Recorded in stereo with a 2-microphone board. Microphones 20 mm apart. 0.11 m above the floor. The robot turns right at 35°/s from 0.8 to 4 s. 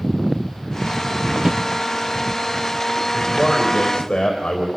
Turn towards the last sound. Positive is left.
turn(degrees=50)